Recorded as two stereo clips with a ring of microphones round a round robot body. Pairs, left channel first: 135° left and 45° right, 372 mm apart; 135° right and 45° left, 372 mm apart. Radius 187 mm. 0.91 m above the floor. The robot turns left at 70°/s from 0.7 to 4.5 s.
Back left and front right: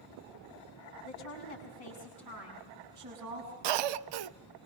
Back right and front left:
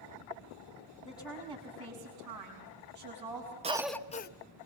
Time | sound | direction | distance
1.0 | a woman speaking | 170° left | 6 m
3.6 | a cough | 30° right | 0.8 m